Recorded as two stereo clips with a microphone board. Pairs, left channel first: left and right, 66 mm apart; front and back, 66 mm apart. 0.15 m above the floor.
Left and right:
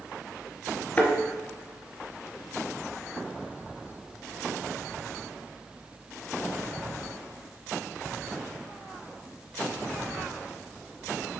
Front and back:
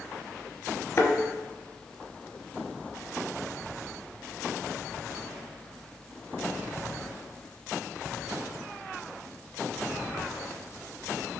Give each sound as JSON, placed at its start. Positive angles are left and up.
{"t": 1.0, "sound": "a thud", "azimuth_deg": 30, "distance_m": 0.8}